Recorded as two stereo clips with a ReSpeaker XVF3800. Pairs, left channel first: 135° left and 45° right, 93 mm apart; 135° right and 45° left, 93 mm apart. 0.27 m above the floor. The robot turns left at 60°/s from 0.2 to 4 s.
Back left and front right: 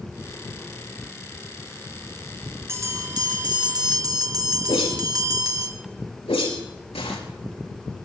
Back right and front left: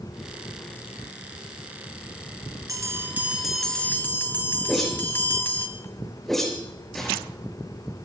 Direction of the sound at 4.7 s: 140° left.